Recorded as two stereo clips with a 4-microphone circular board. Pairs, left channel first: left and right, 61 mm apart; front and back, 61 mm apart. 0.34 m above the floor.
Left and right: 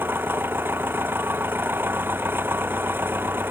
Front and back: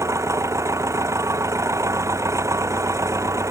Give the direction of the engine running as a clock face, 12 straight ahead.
5 o'clock.